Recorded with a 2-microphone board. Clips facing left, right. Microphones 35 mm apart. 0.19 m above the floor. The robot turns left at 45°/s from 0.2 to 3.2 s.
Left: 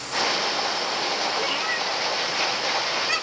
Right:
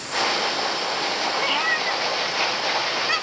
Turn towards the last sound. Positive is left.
turn(degrees=-10)  # may be behind; listen again after turning